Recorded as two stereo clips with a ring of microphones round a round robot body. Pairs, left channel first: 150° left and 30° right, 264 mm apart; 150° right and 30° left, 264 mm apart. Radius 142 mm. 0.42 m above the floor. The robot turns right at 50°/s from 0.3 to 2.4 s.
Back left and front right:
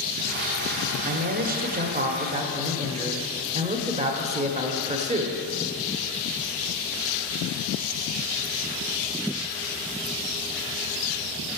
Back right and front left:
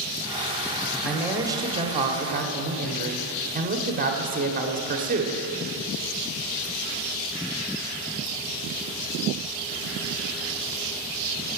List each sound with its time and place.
1.1 s a man speaking: 55° right, 1.3 m; by 5.4 s 10° left, 1.3 m